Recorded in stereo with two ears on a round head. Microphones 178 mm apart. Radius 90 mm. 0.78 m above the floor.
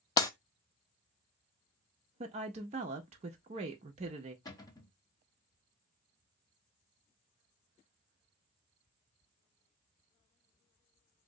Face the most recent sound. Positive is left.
turn(degrees=20)  # may be behind; listen again after turning